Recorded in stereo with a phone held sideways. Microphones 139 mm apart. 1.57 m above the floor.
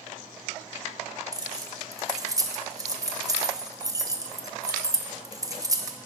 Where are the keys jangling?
25° right (ahead or behind), 0.9 m.